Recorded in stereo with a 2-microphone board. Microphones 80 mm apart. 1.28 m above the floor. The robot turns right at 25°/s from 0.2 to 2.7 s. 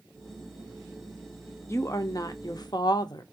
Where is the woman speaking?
35° left (ahead or behind), 0.5 m; by 3.2 s 60° left (ahead or behind), 0.5 m.